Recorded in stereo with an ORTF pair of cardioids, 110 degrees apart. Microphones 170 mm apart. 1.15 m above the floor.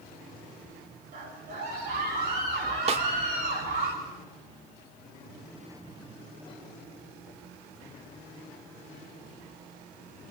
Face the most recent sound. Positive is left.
turn(degrees=-35)